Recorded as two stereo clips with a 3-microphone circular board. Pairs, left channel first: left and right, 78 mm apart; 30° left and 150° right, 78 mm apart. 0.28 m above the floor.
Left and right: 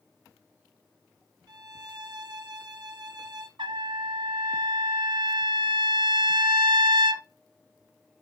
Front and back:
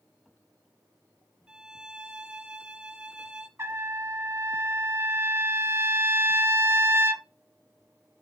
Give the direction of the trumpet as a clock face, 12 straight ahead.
3 o'clock.